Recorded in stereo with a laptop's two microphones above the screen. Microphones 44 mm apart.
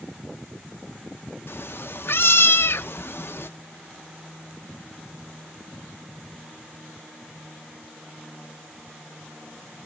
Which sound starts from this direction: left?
A cat meowing, at 1.5 s.